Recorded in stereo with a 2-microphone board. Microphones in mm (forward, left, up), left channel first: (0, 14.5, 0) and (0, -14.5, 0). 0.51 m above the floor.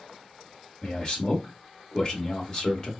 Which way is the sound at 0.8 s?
30° left (ahead or behind).